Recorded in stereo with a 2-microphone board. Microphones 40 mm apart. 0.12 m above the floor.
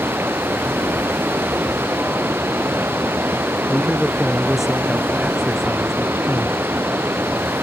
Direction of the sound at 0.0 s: 70° right (ahead or behind).